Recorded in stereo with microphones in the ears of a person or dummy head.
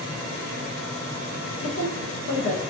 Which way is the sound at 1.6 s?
50° left (ahead or behind).